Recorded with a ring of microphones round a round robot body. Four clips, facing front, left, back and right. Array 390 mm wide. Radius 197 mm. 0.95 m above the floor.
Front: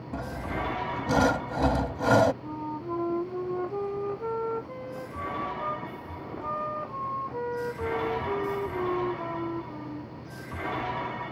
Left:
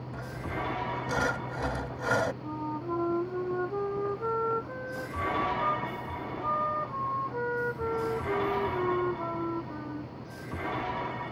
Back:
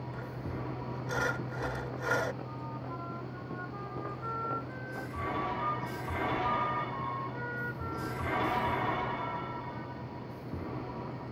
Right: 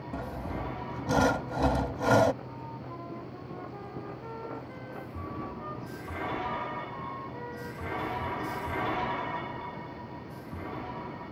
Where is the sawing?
25° right.